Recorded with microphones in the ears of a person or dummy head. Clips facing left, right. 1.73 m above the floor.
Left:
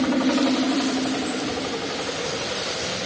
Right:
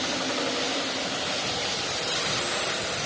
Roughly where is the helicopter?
Left.